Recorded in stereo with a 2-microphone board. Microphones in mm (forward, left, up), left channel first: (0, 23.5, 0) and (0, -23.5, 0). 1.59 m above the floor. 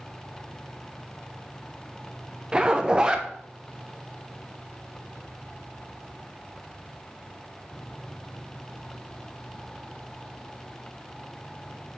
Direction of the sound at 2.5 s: 20° right (ahead or behind).